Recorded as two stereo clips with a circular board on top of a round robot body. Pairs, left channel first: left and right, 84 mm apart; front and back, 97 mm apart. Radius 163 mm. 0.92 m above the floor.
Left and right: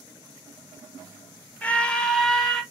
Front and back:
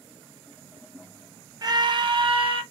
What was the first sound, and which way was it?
A scream, 155° left.